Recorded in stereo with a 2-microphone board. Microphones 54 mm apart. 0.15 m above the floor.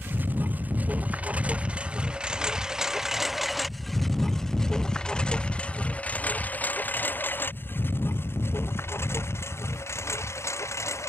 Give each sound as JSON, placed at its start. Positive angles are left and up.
{"t": 0.0, "sound": "a lawn mower", "side_deg": -35}